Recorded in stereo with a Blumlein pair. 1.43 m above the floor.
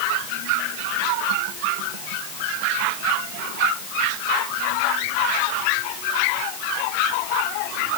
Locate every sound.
Only background noise.